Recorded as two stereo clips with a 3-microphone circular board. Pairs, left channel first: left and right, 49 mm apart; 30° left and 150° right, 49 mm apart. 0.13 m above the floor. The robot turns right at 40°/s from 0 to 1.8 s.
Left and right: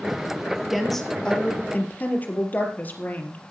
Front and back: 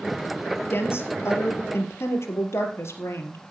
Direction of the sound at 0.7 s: 5° right.